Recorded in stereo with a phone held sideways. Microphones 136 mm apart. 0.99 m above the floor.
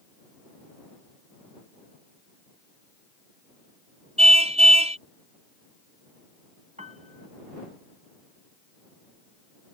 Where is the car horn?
50° right (ahead or behind).